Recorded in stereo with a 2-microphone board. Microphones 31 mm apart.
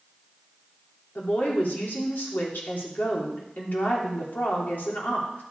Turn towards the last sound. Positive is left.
turn(degrees=85)